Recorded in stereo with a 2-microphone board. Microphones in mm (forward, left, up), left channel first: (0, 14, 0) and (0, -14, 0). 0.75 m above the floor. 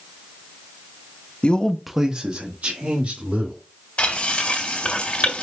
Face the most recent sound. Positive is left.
turn(degrees=45)  # may be behind; listen again after turning